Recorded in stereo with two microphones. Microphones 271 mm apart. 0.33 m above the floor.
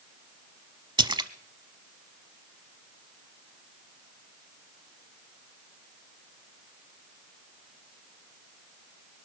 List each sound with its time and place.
1.0 s a splash: 15° right (ahead or behind), 0.7 m